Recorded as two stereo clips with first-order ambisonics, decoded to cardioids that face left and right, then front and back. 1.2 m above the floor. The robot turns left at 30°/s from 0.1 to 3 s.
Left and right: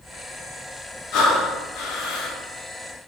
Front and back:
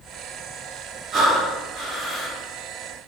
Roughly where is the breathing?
Behind left.